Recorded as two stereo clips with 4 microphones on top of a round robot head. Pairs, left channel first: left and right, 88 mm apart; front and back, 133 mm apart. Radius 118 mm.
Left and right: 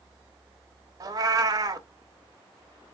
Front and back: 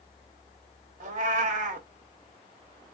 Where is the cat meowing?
135° right, 0.6 m.